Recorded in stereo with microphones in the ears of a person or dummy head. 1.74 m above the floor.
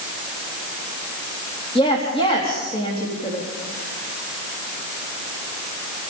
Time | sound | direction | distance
1.8 | a woman speaking | 35° left (ahead or behind) | 4 m